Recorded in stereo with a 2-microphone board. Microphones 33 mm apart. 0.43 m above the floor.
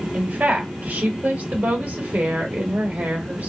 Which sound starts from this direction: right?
A woman speaking, at 0.1 s.